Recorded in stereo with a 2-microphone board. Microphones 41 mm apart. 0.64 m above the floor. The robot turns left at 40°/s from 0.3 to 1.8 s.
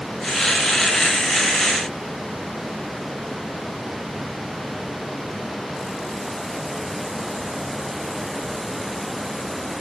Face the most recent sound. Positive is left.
No sound to turn to.